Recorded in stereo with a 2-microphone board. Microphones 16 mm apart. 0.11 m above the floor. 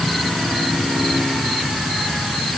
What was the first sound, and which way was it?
Only background noise.